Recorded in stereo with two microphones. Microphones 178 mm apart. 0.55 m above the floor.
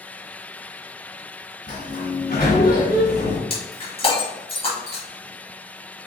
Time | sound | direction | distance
1.7 | a sliding door | 55° left (ahead or behind) | 1.3 m
3.5 | breaking glass | 35° left (ahead or behind) | 1.6 m